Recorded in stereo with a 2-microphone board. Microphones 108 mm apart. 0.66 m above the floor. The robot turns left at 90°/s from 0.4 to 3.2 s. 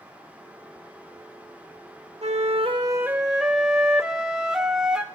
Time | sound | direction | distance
2.2 | a flute | 85° right | 0.6 m